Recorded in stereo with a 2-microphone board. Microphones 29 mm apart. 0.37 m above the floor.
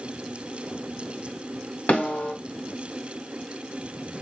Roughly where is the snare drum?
Left.